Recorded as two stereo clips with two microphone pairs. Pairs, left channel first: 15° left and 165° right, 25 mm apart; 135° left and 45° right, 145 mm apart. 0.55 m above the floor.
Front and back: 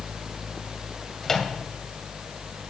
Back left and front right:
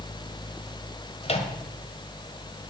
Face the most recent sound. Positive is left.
turn(degrees=90)